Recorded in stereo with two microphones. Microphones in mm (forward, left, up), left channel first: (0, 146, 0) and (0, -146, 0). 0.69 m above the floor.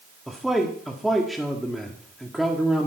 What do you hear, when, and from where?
0.3 s a man speaking: centre (ahead or behind), 1.6 m